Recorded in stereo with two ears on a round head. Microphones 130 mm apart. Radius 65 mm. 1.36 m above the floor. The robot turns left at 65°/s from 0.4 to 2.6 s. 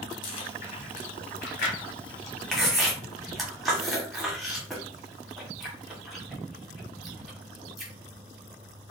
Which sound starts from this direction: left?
Chewing, at 0.2 s.